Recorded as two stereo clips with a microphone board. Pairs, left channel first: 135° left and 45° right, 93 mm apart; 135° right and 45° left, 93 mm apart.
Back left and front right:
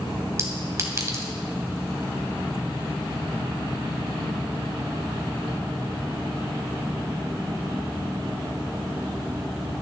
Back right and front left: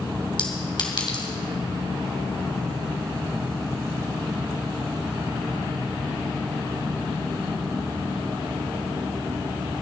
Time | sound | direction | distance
0.4 | a clink | 100° right | 2.5 m